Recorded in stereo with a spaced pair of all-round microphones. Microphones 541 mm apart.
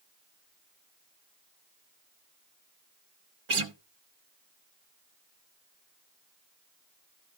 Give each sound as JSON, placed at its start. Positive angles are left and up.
{"t": 3.5, "sound": "a guitar", "side_deg": -65, "distance_m": 1.0}